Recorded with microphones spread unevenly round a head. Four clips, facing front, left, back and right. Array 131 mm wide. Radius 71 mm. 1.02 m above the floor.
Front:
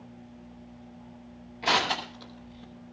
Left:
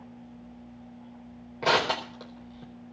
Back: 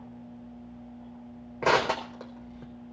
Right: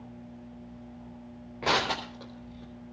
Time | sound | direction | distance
1.6 | crushing | 165° left | 4.5 m